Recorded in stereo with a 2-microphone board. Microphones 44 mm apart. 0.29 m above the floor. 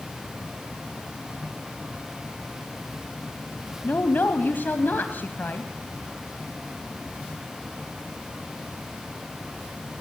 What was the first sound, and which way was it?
A woman speaking, 50° left (ahead or behind).